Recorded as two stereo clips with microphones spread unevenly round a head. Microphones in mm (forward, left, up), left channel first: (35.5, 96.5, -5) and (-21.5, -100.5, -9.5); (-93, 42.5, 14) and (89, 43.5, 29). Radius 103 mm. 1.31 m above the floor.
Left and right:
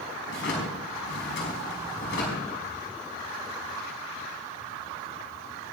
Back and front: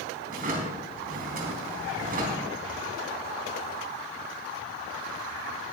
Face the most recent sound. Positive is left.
turn(degrees=40)